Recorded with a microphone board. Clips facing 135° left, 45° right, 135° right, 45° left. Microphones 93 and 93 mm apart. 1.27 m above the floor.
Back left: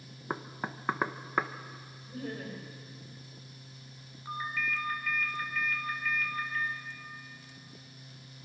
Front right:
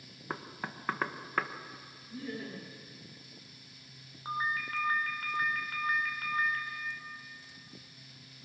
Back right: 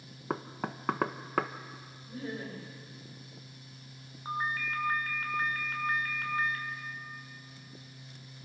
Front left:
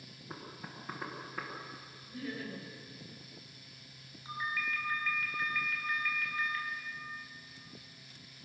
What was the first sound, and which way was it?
Knocking, 150° right.